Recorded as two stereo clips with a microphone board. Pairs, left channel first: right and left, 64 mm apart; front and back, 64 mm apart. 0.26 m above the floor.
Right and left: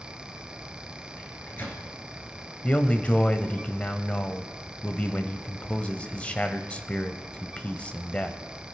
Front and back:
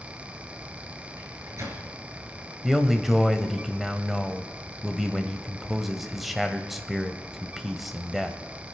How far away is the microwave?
About 3 m.